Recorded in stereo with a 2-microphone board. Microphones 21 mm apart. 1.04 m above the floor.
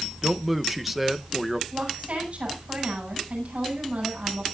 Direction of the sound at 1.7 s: 55° right (ahead or behind).